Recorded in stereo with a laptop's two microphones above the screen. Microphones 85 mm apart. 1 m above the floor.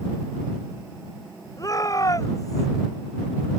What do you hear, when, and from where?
1.6 s a shout: 45° left (ahead or behind)